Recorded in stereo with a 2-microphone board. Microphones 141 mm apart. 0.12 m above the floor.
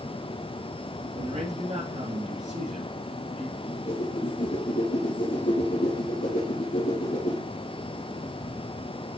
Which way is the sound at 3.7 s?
65° left (ahead or behind).